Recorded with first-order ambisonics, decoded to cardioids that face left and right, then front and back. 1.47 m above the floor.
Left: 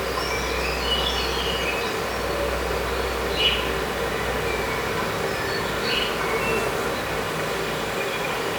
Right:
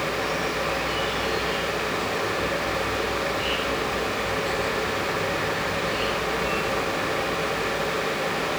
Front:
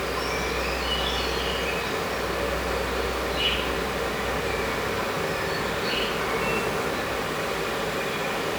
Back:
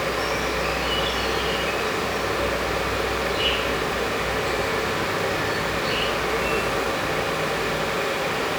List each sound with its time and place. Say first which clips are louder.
0.0 s an insect: even, back 3 dB; 85° left, 3 m